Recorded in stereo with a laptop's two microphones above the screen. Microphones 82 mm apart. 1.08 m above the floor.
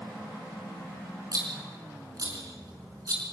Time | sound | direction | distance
1.3 | a rattle | 50° right (ahead or behind) | 4 m